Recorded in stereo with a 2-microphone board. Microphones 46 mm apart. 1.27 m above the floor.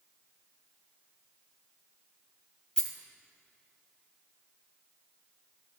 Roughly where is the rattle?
Centre.